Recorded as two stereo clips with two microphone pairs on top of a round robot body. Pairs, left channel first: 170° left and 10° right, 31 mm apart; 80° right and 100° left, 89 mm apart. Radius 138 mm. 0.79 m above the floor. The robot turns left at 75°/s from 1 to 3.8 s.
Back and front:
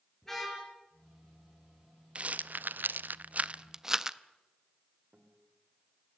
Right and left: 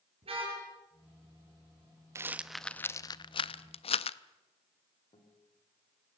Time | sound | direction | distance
0.2 | a car horn | 90° left | 10 m
2.1 | a rattle | 40° left | 0.5 m
5.1 | a guitar | 60° right | 3.5 m